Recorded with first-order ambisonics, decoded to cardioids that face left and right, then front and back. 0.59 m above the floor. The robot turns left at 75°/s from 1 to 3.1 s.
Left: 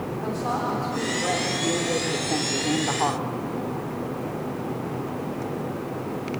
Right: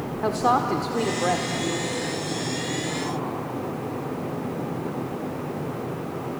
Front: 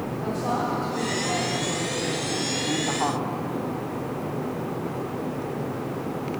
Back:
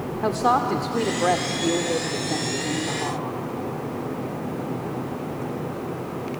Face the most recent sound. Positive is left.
turn(degrees=60)